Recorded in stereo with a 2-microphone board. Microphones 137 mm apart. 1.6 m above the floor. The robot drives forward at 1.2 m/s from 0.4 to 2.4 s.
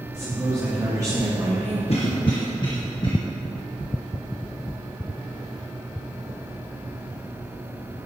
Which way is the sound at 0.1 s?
20° right (ahead or behind).